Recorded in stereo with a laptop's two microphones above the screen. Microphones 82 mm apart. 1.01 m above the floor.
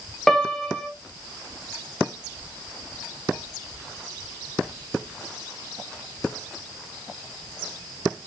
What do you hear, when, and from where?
0.3 s a piano: 5° left (ahead or behind), 0.6 m